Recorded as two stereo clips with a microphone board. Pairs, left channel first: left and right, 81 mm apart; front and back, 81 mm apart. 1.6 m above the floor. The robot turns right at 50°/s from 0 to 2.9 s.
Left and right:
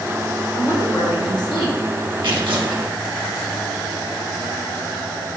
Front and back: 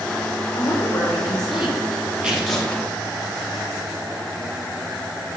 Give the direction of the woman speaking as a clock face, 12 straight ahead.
11 o'clock.